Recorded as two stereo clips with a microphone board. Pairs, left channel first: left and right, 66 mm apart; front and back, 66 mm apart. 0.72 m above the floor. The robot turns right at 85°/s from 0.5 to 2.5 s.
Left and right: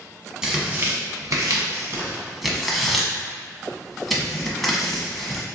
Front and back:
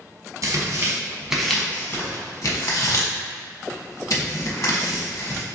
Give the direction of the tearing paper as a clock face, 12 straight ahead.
6 o'clock.